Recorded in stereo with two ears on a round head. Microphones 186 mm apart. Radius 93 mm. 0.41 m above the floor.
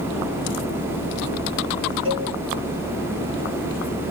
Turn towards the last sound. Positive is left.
turn(degrees=-25)  # may be behind; listen again after turning